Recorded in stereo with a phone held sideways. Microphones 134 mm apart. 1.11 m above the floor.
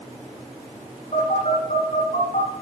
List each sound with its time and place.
1.1 s a phone buzzing: 65° left (ahead or behind), 9.5 m